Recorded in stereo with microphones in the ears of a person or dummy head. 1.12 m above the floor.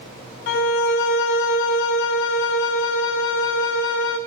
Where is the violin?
35° left (ahead or behind), 0.5 m.